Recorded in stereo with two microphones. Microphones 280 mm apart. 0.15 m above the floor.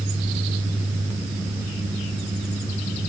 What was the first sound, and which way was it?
Only background noise.